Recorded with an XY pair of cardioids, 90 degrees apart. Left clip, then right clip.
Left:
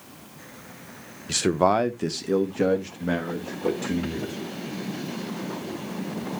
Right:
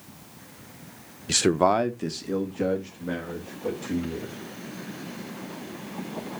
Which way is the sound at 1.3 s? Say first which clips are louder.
Even; 30° right.